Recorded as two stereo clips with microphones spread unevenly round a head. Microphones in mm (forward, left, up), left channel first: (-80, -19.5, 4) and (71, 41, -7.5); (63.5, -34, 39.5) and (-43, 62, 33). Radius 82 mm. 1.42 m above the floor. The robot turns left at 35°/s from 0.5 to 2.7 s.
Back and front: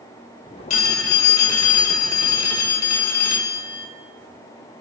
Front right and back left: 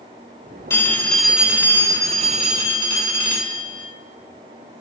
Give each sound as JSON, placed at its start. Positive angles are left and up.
{"t": 0.7, "sound": "a phone ringing", "azimuth_deg": -115, "distance_m": 3.0}